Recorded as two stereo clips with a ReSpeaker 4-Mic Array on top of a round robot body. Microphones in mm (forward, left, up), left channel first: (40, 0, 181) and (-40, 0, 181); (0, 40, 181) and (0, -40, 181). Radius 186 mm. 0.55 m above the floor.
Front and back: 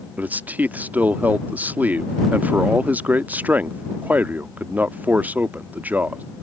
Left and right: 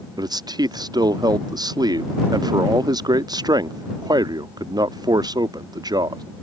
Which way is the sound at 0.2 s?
110° right.